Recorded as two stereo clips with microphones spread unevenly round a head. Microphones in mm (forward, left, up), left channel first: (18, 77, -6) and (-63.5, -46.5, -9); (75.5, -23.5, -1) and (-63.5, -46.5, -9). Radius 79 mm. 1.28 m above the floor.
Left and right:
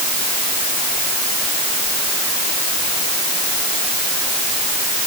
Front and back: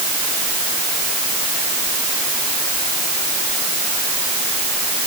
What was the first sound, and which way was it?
Only background noise.